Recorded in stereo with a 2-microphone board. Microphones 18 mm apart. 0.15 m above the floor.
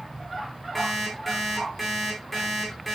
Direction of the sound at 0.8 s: 10° left (ahead or behind).